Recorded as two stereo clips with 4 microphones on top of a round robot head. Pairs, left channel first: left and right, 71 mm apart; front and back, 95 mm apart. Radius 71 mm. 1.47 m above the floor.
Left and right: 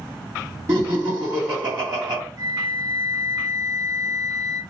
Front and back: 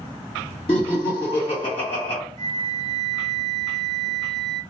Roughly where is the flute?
Ahead right.